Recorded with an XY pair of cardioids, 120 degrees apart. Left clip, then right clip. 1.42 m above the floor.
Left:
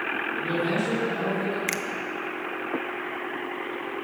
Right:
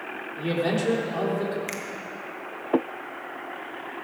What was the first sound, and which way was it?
A man speaking, 55° right.